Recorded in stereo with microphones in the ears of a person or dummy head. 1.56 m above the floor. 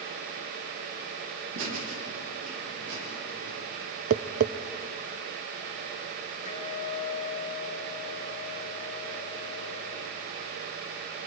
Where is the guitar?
35° left (ahead or behind), 5 m.